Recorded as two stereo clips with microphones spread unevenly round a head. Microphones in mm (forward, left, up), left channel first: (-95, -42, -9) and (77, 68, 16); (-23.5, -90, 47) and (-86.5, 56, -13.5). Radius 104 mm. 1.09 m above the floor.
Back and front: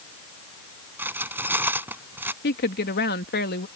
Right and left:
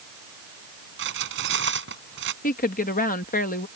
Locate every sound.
1.0 s cutlery clinking: 110° left
2.4 s a woman speaking: 105° right